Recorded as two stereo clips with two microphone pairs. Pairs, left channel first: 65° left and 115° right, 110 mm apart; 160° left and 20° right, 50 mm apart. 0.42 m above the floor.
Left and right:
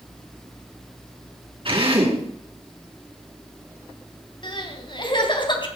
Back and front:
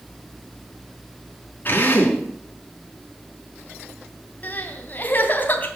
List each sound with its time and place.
1.6 s a drill: 150° right, 5 m
4.4 s crying: 110° left, 3 m